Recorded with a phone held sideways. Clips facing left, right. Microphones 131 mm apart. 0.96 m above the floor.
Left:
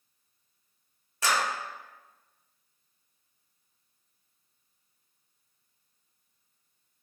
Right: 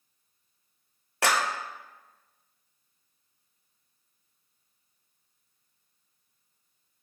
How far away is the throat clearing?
I don't hear throat clearing.